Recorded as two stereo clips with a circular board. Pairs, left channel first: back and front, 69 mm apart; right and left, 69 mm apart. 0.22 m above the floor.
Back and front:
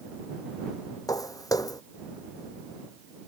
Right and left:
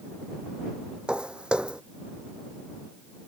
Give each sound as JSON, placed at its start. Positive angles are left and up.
{"t": 1.1, "sound": "footsteps", "azimuth_deg": 165}